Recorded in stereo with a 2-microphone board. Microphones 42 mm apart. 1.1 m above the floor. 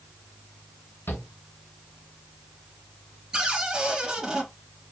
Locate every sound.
1.1 s a shout: 75° left (ahead or behind), 1.5 m
3.3 s a cupboard door: 15° right (ahead or behind), 1.6 m